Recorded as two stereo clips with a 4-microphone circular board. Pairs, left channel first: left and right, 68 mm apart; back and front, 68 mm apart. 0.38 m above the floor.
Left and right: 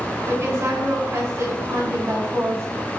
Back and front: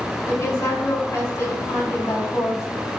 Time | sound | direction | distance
0.3 | a woman speaking | 135° right | 5 m